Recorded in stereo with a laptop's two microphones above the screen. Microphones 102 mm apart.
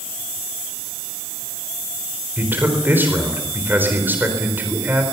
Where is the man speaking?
20° right (ahead or behind), 4 m.